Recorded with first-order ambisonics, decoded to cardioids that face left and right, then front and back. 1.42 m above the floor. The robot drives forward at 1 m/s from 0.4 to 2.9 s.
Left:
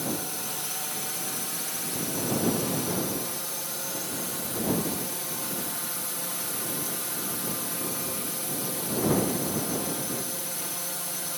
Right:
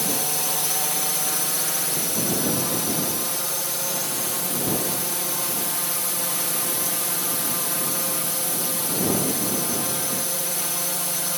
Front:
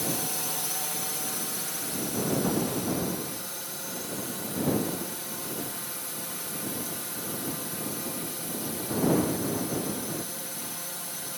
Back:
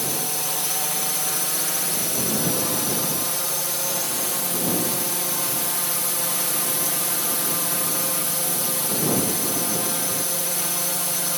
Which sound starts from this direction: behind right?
A drone, at 0.0 s.